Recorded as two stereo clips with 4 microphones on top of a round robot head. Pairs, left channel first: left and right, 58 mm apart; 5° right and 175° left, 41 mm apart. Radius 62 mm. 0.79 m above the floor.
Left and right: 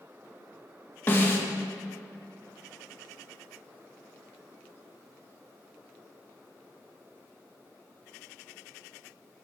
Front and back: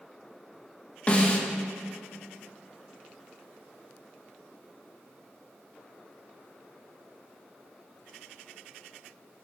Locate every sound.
1.1 s a snare drum: 45° left, 1.8 m